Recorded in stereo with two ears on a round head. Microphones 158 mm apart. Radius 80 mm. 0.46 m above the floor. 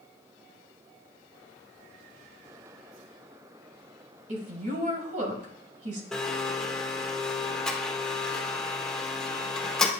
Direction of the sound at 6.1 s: 5° left (ahead or behind).